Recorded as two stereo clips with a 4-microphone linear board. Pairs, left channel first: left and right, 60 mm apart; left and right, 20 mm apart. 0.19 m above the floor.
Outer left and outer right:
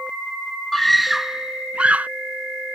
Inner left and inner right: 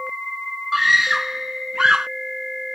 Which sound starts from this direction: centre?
A scream, at 0.7 s.